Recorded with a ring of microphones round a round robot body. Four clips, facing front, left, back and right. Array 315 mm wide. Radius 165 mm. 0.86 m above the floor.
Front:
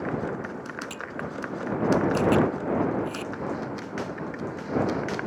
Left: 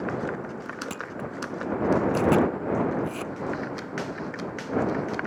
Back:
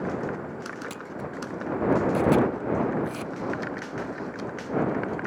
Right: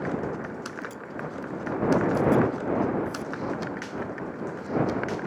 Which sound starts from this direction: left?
A camera shutter, at 0.9 s.